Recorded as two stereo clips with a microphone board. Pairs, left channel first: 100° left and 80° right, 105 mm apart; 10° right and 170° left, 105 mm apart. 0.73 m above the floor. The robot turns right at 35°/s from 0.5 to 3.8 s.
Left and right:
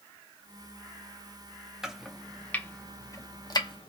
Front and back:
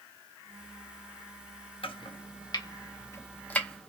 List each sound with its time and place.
1.8 s chopping: 5° left, 0.6 m; by 3.9 s 70° left, 0.6 m